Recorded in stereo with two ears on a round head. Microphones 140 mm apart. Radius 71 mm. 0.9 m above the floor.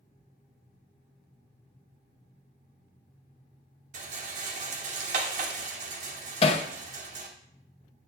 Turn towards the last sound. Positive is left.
turn(degrees=40)  # may be behind; listen again after turning